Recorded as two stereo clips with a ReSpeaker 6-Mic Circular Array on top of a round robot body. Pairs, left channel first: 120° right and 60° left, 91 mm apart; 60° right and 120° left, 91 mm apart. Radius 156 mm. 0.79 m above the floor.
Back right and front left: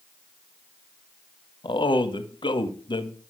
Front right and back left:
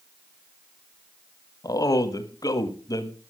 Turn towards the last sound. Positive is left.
turn(degrees=-105)